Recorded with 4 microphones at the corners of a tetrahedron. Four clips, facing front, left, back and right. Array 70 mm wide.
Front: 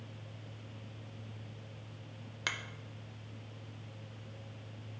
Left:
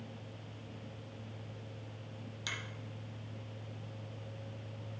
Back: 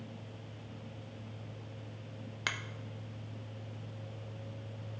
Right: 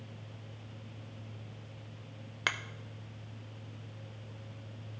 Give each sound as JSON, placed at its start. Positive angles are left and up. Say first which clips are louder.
{"t": 2.5, "sound": "a finger snap", "louder": "right 9 dB, back 1 dB", "azimuth_deg": -95, "distance_m": 0.5}